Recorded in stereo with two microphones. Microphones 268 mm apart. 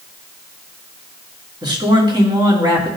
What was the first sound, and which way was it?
A man speaking, 15° right (ahead or behind).